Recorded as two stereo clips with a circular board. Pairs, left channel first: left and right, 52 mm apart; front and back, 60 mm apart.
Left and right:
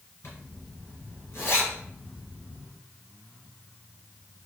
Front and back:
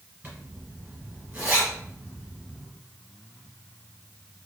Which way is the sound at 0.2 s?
120° left.